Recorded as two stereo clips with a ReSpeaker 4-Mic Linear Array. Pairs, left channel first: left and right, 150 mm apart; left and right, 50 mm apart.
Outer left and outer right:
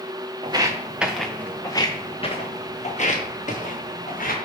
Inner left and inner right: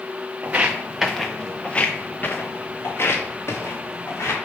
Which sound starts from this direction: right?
Footsteps, at 0.4 s.